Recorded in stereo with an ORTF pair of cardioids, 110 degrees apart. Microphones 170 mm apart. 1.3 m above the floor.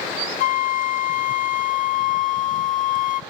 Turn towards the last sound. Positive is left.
turn(degrees=50)